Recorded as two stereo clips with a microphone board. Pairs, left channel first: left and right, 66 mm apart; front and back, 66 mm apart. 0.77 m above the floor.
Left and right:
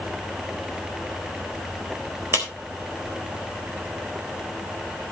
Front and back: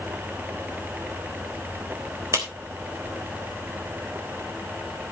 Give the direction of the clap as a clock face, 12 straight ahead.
5 o'clock.